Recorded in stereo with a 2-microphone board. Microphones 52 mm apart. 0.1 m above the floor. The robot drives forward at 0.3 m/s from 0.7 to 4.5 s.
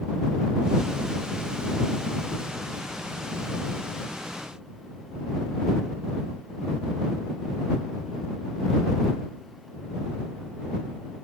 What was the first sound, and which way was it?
Only background noise.